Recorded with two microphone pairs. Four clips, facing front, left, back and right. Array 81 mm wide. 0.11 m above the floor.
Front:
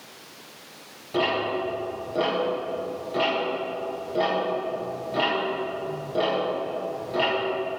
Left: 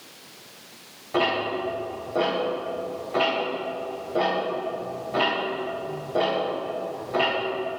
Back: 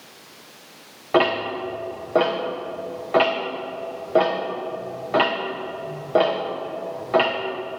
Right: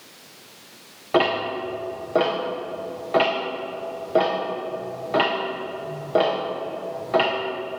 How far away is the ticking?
About 3 m.